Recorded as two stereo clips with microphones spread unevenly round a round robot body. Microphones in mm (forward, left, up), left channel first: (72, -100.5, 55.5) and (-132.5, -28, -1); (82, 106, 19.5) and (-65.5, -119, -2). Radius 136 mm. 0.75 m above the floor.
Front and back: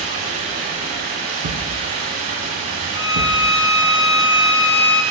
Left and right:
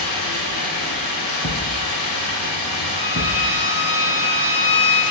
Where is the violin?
60° right, 0.9 m.